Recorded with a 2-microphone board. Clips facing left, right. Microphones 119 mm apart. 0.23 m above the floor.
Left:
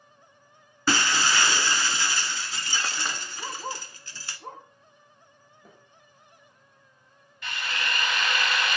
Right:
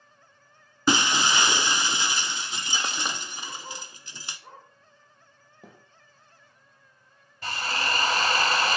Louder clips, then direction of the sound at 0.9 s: Right 2 dB; 20° right (ahead or behind).